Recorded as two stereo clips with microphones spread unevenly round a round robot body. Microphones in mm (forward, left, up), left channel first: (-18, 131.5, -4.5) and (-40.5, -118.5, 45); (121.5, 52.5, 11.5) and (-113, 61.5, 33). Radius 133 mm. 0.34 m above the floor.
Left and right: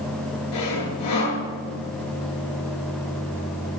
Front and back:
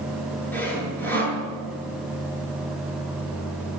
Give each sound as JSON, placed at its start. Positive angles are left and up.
{"t": 0.5, "sound": "sawing", "azimuth_deg": 80, "distance_m": 7.0}